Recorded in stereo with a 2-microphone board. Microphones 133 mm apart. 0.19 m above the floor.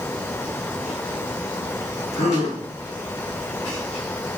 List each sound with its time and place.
2.1 s a gasp: 55° left (ahead or behind), 6 m